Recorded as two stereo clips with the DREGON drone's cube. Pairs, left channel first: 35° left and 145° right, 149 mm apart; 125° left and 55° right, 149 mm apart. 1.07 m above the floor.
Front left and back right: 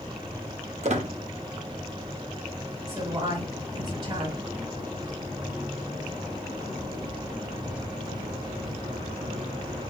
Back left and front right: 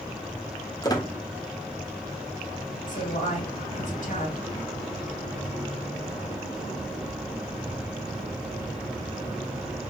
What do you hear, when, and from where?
0.8 s a squeak: 175° right, 0.8 m
2.9 s a woman speaking: 155° left, 1.8 m